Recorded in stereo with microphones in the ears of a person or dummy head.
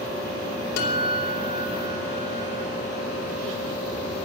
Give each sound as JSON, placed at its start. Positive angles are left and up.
{"t": 0.8, "sound": "a guitar", "side_deg": 60, "distance_m": 5.0}